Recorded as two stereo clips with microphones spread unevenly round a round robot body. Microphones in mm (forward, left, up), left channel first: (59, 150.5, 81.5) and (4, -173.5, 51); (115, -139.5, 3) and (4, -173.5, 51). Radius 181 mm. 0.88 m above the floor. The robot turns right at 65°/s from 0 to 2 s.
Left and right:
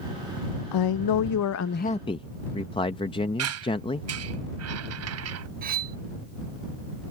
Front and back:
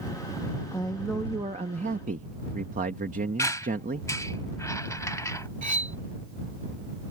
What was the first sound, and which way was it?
A man speaking, 75° left.